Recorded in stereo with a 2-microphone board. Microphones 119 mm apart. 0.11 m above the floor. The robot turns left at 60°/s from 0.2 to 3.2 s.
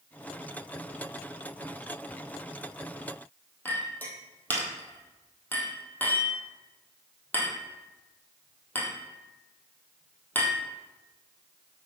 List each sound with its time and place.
3.6 s a clink: 15° left (ahead or behind), 2.0 m